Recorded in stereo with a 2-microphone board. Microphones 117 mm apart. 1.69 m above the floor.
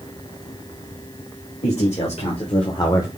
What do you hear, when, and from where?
1.6 s a man speaking: 70° left (ahead or behind), 2.5 m; by 3.1 s 20° left (ahead or behind), 0.7 m